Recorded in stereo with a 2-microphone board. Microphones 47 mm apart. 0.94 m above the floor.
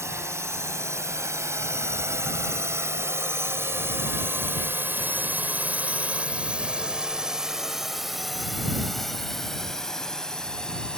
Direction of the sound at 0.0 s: 80° right.